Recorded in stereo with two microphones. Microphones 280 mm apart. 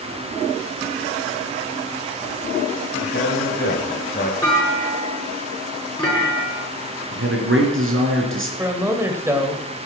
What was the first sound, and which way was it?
A man speaking, 45° left (ahead or behind).